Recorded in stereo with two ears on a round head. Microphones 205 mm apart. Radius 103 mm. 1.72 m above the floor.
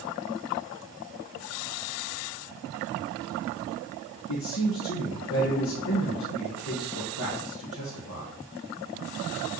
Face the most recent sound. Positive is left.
turn(degrees=65)  # may be behind; listen again after turning